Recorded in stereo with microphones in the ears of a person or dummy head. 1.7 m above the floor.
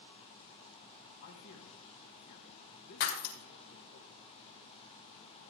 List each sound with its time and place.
1.2 s a man speaking: 60° left (ahead or behind), 2.5 m
3.0 s breaking glass: 60° left (ahead or behind), 2 m